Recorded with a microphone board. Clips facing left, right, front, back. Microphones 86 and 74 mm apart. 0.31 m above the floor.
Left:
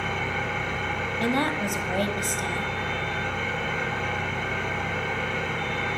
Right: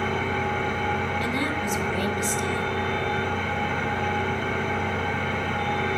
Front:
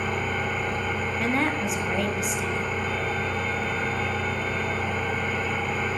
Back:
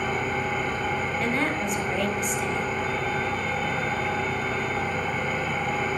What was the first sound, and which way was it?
An engine running, 140° right.